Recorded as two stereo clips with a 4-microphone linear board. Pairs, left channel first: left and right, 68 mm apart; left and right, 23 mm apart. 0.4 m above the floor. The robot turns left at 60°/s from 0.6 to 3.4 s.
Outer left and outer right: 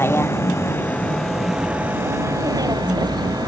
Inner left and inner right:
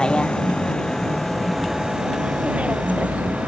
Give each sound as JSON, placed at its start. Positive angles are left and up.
{"t": 0.0, "sound": "a vehicle", "side_deg": 35}